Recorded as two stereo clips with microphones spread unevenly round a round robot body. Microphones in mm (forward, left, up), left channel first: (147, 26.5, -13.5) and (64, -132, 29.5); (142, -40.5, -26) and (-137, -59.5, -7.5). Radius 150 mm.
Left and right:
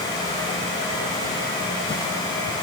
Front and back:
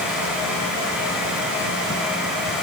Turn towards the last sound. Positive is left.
No sound to turn to.